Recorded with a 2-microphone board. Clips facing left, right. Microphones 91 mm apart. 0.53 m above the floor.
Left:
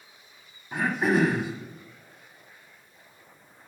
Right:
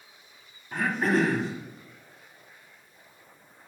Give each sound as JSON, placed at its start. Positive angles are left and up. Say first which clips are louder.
{"t": 0.7, "sound": "throat clearing", "louder": "left 1 dB", "side_deg": 10, "distance_m": 1.1}